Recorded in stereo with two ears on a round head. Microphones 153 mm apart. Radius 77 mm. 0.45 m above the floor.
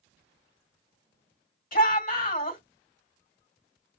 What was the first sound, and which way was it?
A shout, 50° left (ahead or behind).